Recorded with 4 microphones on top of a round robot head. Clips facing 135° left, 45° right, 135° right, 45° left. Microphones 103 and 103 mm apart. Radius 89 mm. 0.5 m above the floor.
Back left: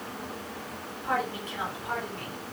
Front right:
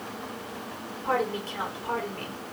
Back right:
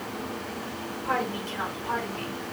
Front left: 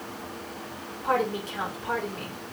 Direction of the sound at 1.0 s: 5° left.